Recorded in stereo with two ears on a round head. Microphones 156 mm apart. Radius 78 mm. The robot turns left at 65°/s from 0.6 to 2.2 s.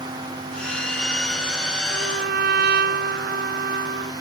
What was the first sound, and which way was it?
A trumpet, 80° right.